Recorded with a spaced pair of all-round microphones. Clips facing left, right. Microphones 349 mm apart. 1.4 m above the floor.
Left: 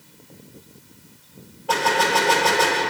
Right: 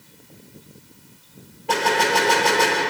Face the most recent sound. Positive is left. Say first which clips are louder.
# right 1 dB
turn(degrees=-35)  # may be behind; listen again after turning